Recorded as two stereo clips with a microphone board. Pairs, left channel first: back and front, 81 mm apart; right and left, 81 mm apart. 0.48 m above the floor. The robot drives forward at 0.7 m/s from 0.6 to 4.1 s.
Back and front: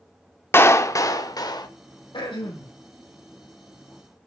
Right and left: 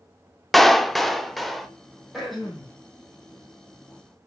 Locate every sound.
0.5 s a clap: 175° right, 0.8 m
2.1 s throat clearing: straight behind, 4.5 m